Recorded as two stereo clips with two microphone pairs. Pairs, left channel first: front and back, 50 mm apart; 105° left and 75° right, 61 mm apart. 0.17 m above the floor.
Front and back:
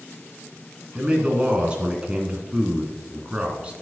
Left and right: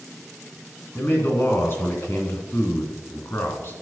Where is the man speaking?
135° left, 2 m.